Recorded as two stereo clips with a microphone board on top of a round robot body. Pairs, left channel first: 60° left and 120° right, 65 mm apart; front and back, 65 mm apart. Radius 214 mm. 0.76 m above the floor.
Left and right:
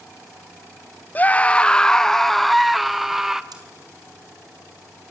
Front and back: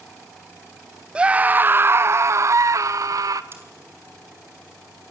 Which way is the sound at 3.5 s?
130° right.